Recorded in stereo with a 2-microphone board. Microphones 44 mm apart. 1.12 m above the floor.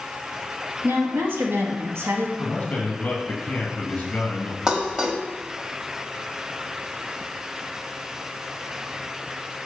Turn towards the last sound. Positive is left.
turn(degrees=-20)  # may be behind; listen again after turning